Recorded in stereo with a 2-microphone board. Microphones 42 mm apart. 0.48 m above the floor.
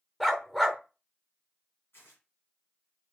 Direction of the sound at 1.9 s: 80° left.